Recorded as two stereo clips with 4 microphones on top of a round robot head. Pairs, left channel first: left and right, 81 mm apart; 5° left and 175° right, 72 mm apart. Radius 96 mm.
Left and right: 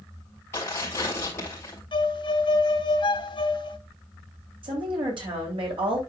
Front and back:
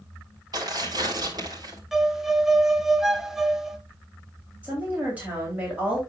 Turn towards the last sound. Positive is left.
turn(degrees=-105)